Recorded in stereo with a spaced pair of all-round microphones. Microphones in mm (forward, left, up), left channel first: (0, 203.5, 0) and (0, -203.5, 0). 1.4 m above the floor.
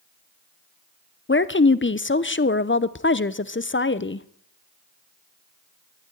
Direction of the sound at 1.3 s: 30° left (ahead or behind).